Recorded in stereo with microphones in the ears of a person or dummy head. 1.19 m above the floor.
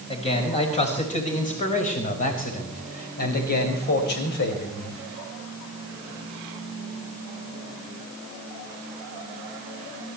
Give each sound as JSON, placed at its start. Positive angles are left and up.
{"t": 0.1, "sound": "a man speaking", "side_deg": 30, "distance_m": 5.0}